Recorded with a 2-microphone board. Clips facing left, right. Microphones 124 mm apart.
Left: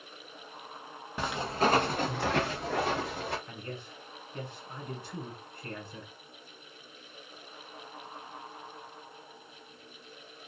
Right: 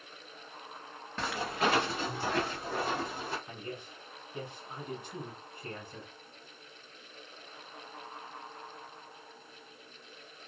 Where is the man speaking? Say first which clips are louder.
Even; 15° right (ahead or behind), 1.2 m.